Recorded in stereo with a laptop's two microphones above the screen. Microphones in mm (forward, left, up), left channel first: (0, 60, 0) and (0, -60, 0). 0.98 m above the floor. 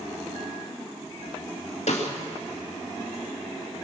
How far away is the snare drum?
About 2 m.